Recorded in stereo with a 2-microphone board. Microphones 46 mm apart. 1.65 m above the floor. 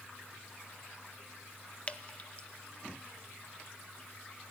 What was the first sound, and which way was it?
Dripping, 30° left (ahead or behind).